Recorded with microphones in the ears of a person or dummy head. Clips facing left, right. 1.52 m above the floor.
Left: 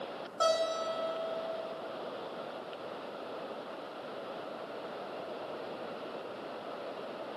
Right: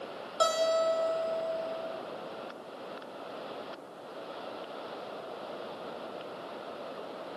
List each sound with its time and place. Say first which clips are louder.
0.4 s a guitar: right 4 dB; 40° right (ahead or behind), 0.6 m